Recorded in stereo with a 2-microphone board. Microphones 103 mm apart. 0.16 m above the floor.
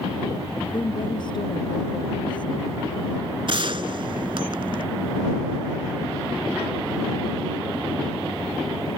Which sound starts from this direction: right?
A gunshot, at 3.5 s.